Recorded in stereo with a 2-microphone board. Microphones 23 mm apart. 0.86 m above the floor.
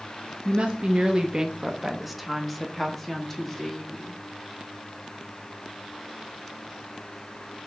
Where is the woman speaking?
65° right (ahead or behind), 0.7 m; by 4.2 s 25° left (ahead or behind), 1.7 m.